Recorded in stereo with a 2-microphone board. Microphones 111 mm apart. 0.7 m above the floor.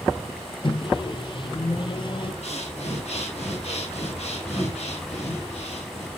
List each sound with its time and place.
0.6 s a microwave: 45° left (ahead or behind), 0.7 m
2.4 s breathing: 75° left (ahead or behind), 4 m